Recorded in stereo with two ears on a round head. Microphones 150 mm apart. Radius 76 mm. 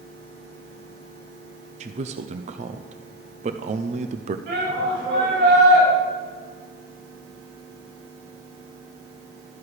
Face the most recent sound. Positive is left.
turn(degrees=-70)  # may be behind; listen again after turning